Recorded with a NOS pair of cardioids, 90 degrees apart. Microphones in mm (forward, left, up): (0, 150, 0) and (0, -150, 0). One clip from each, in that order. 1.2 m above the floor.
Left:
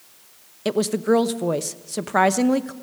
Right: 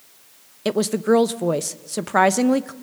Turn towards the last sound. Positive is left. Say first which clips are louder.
# right 1 dB
turn(degrees=-10)